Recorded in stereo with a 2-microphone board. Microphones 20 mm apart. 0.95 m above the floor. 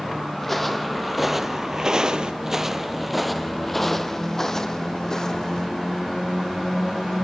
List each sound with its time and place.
0.4 s footsteps: 10° left (ahead or behind), 2 m; by 2.3 s 50° right (ahead or behind), 1.5 m
2.4 s footsteps: 25° right (ahead or behind), 1.1 m; by 5.7 s 30° left (ahead or behind), 2 m